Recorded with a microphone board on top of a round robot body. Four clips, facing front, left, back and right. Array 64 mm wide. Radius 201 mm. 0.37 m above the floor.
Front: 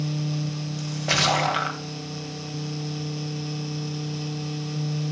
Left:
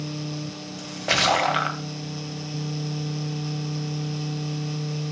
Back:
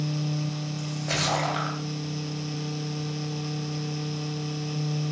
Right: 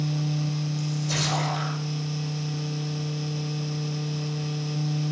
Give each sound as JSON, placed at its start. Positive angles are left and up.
{"t": 0.8, "sound": "a splash", "azimuth_deg": 70, "distance_m": 2.0}